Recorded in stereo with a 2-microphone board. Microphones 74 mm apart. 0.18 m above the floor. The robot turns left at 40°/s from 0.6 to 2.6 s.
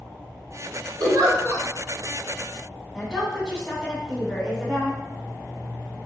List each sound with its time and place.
1.0 s a giggle: 60° right (ahead or behind), 1.1 m; by 1.6 s 35° right (ahead or behind), 1.1 m
2.9 s a woman speaking: 5° left (ahead or behind), 1.5 m